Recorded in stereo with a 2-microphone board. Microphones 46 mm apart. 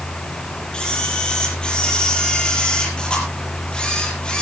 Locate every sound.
0.7 s a camera shutter: 20° left (ahead or behind), 5 m